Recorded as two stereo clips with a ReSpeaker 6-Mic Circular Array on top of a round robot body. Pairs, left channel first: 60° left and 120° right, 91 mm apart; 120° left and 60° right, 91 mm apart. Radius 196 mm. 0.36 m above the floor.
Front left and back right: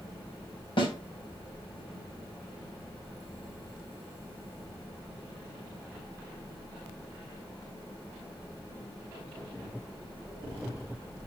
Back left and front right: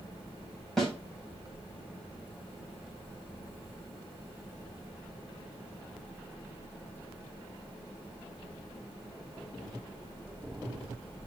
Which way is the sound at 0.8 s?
35° left.